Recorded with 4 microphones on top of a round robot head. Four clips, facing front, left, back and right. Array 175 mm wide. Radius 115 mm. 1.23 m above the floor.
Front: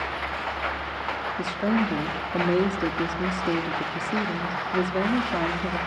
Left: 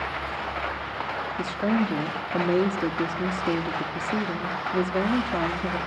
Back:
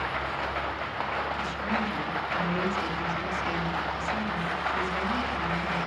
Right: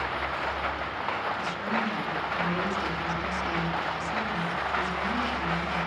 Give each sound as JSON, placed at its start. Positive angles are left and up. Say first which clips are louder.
{"t": 1.4, "sound": "a woman speaking", "louder": "left 5 dB, front 5 dB", "azimuth_deg": 50, "distance_m": 3.0}